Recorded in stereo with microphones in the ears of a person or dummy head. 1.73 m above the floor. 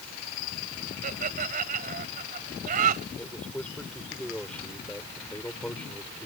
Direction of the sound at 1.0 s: 40° right (ahead or behind).